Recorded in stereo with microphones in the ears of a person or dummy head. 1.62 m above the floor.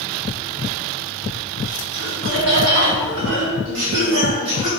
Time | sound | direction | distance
1.9 | laughter | 70° right (ahead or behind) | 2.5 m